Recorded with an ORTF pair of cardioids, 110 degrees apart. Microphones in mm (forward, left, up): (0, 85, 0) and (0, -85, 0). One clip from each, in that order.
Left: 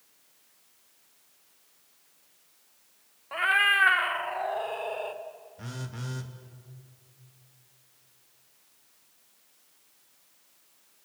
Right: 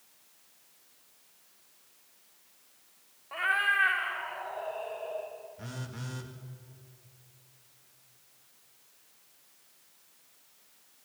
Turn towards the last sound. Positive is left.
turn(degrees=15)